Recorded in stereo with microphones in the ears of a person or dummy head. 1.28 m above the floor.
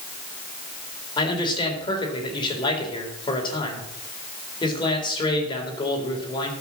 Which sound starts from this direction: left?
A man speaking, at 1.2 s.